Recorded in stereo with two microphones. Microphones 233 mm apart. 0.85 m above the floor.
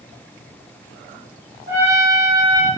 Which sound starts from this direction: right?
A trumpet, at 1.7 s.